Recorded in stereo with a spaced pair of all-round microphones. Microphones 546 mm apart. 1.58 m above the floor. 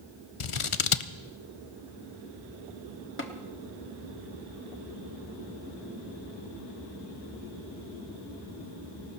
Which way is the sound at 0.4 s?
65° left (ahead or behind).